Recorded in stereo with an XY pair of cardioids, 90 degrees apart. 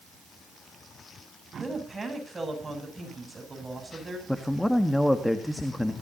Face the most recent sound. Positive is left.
turn(degrees=10)